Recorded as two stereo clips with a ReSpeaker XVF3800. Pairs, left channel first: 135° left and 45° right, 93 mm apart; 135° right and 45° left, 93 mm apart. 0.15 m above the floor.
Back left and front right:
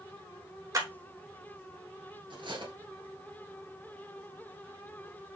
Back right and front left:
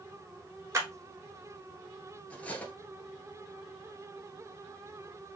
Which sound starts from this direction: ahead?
A clap, at 0.7 s.